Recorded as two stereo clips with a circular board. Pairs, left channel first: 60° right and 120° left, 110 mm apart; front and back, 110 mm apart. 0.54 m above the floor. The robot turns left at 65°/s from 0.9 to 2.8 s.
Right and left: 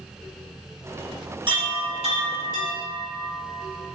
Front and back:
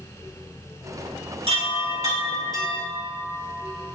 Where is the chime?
155° left, 4 m; by 4.0 s 70° left, 4 m.